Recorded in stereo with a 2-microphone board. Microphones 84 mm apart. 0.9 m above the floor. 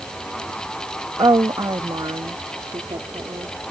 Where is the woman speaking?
65° right (ahead or behind); by 3.7 s 80° right.